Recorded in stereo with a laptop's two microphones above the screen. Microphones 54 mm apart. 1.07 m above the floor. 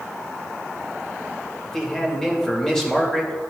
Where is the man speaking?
10° left (ahead or behind), 2 m.